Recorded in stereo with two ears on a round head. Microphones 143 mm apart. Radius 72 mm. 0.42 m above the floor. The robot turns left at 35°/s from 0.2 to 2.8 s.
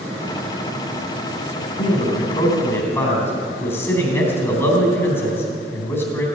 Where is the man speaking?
55° left, 3.5 m; by 6.3 s 15° left, 3.5 m.